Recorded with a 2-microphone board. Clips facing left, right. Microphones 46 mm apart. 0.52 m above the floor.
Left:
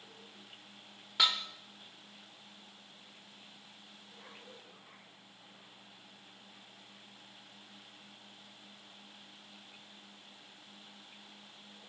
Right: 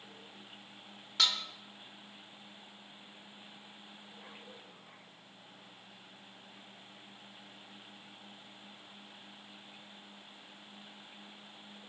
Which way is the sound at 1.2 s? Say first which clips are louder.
Left 1 dB; 15° left (ahead or behind).